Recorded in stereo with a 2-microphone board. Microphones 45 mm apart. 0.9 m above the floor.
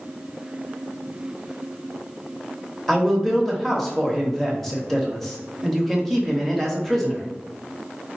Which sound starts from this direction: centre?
A man speaking, at 2.9 s.